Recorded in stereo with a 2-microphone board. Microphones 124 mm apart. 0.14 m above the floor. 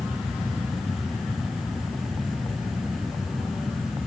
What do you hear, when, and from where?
Only background noise.